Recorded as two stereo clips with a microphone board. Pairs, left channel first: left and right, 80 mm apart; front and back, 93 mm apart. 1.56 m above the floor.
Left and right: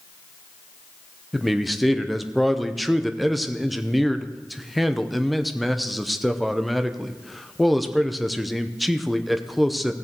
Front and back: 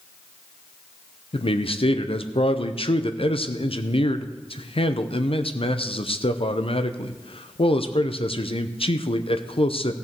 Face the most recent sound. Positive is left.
turn(degrees=0)